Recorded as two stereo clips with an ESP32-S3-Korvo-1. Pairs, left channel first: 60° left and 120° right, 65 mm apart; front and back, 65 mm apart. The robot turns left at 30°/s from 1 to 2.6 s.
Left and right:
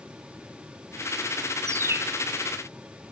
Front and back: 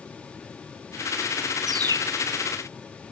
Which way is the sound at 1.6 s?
160° right.